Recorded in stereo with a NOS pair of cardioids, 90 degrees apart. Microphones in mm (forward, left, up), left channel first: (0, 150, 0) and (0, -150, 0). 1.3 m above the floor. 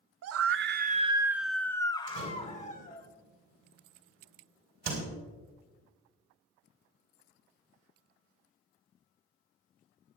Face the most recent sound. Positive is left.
turn(degrees=-65)